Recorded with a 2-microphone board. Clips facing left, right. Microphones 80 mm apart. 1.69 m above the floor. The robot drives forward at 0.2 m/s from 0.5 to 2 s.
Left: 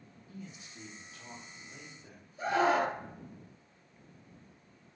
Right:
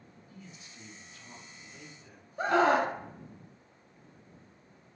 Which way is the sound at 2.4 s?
70° right (ahead or behind).